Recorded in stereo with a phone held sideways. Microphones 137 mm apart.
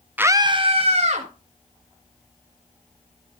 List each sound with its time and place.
0.2 s a scream: 10° right (ahead or behind), 0.6 m; by 1.3 s 50° right (ahead or behind), 1.9 m